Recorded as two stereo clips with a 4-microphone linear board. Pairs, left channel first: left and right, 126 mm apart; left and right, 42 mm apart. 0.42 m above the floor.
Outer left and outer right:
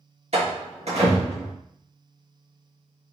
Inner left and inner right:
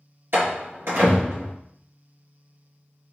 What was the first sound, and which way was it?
A door slam, 65° right (ahead or behind).